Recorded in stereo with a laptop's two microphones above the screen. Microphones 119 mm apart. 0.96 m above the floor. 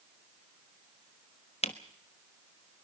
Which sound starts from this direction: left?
A camera shutter, at 1.6 s.